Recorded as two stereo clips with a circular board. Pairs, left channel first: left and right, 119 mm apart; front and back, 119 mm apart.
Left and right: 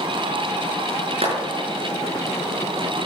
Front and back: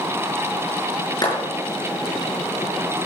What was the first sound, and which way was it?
A clap, 60° right.